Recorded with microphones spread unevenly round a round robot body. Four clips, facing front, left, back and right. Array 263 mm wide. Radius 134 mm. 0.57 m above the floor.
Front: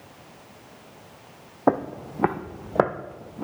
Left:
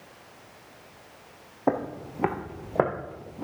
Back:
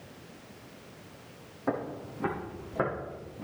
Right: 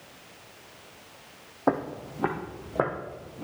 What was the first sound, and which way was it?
Footsteps, 5° right.